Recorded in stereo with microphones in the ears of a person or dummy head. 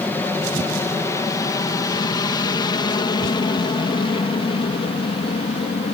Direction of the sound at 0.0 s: 10° left (ahead or behind).